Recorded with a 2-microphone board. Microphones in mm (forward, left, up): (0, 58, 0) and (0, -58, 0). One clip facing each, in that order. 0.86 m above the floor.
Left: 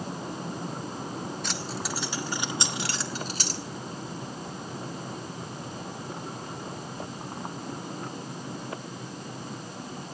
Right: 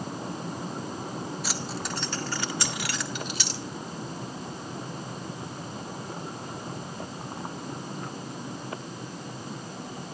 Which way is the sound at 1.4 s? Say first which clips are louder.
Even; 5° right (ahead or behind).